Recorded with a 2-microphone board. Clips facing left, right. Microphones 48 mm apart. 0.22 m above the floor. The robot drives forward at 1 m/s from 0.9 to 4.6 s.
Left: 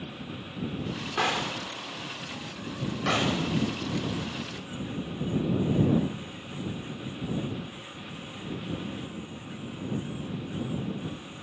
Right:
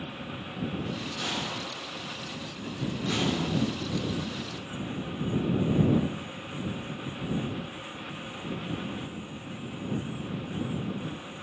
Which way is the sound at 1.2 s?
80° left.